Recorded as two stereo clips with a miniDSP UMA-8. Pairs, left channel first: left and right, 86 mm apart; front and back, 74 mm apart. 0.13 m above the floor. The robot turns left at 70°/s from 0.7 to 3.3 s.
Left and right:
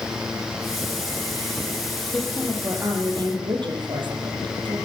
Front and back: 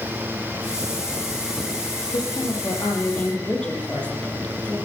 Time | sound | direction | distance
2.1 | a woman speaking | 10° left | 5 m